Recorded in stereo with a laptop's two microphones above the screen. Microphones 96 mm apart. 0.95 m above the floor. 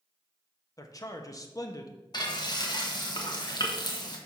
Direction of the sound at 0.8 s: 35° left (ahead or behind).